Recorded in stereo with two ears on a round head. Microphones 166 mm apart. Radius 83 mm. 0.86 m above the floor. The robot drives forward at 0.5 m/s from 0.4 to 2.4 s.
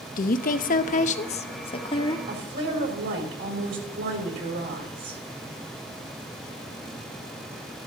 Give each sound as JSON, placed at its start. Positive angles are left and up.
{"t": 0.2, "sound": "a woman speaking", "side_deg": 50, "distance_m": 0.6}
{"t": 2.3, "sound": "a woman speaking", "side_deg": -70, "distance_m": 3.5}